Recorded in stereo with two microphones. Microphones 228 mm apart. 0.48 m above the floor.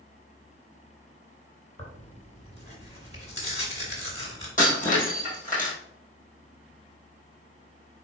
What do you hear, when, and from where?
1.8 s tearing paper: 25° left (ahead or behind), 1.7 m
4.6 s breaking glass: 35° left (ahead or behind), 2 m